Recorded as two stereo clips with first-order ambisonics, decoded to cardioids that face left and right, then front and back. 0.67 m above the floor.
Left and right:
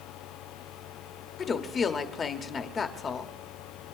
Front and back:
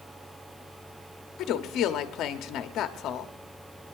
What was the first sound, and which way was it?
A woman speaking, 30° left.